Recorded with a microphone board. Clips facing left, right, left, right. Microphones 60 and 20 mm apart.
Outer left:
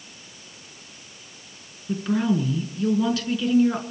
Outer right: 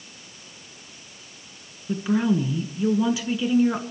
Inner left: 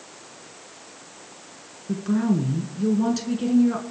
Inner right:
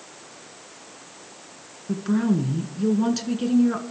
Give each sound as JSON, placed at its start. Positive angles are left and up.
{"t": 1.9, "sound": "a woman speaking", "side_deg": -10, "distance_m": 1.9}